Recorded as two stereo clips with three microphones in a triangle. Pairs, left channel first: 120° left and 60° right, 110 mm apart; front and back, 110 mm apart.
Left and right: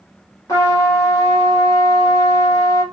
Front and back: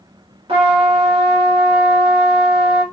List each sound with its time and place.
0.5 s a trumpet: 170° left, 1.7 m